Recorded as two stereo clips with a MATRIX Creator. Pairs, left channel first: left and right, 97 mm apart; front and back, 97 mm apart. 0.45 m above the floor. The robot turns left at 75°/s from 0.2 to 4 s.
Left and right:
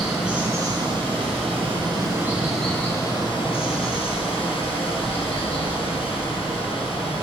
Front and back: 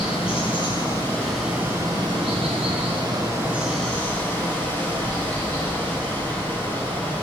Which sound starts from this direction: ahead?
Running water, at 0.0 s.